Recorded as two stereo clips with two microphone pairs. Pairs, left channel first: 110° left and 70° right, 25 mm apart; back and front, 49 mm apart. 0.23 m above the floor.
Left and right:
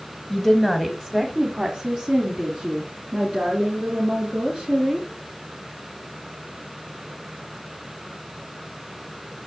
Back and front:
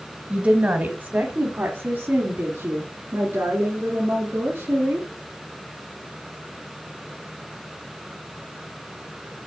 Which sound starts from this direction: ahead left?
A woman speaking, at 0.3 s.